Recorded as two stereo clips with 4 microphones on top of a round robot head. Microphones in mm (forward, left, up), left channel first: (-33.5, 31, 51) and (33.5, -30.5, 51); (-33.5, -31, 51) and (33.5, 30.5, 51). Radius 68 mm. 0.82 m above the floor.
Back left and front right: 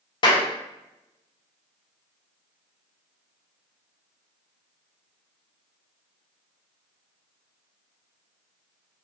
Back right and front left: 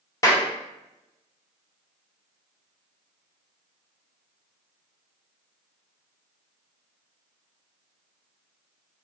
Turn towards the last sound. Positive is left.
turn(degrees=170)